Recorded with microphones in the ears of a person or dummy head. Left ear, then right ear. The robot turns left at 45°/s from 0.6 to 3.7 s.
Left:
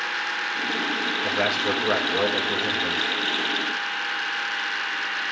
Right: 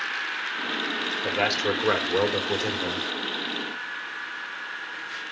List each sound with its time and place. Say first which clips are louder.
1.2 s a man speaking: even; 30° right, 7 m; by 3.0 s 110° right, 7 m